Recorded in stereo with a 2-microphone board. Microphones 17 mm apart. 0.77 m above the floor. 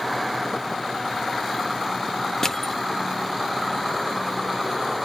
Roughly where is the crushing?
Left.